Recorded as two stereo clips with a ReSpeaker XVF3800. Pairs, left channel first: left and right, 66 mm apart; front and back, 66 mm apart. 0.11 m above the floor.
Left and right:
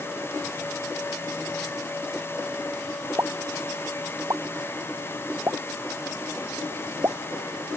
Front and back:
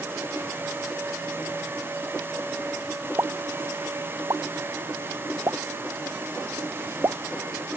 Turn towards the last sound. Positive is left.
turn(degrees=-140)